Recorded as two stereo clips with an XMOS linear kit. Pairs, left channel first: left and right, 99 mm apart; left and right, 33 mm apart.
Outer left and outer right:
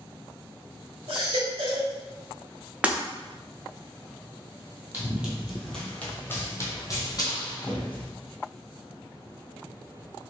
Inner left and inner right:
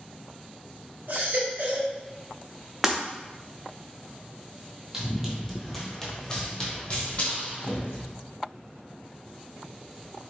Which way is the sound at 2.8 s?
15° right (ahead or behind).